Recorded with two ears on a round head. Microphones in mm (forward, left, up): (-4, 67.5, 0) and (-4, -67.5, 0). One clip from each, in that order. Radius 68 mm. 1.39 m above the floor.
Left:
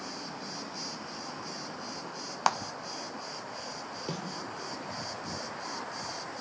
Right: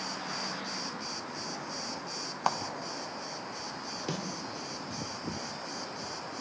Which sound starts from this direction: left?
A clap, at 2.5 s.